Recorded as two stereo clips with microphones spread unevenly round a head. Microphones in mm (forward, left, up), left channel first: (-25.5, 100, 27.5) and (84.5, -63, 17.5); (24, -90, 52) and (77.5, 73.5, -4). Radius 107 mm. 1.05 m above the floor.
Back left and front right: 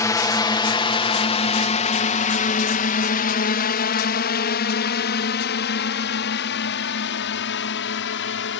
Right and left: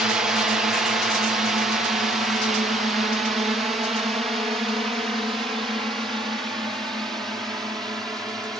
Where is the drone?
75° left; by 8.6 s 155° left.